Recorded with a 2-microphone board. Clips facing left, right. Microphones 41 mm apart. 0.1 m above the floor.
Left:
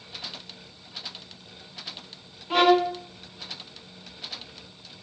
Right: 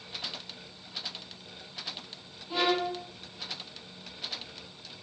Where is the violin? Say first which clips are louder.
Left 9 dB; 70° left (ahead or behind), 0.7 m.